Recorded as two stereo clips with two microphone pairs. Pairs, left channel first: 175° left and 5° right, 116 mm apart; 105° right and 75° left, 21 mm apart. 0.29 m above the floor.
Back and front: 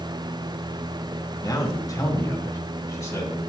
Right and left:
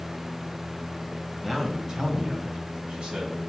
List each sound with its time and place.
1.4 s a man speaking: 150° left, 1.7 m; by 3.4 s 115° left, 3 m